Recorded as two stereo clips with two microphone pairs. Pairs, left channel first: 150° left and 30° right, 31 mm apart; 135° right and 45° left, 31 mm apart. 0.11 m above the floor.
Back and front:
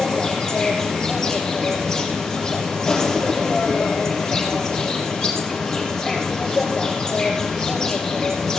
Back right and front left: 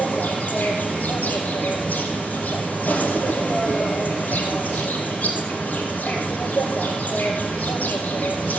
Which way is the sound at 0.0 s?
140° right.